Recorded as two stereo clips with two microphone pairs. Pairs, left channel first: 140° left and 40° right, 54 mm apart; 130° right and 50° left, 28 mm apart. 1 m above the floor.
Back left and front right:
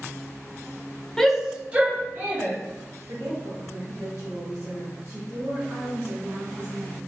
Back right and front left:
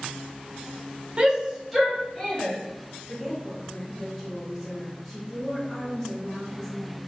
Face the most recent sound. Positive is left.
turn(degrees=-50)